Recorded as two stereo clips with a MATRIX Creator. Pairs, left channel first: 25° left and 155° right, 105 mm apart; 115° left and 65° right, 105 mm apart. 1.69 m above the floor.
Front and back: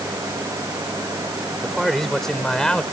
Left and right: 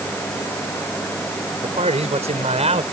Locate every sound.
1.6 s a man speaking: 65° right; by 2.8 s 60° right